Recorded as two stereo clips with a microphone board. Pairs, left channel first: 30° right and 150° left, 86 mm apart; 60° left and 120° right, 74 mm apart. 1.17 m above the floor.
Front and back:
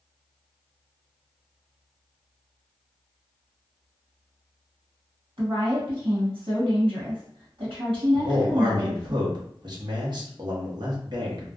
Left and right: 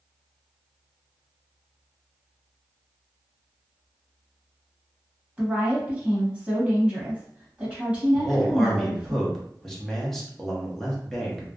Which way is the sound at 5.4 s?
165° left.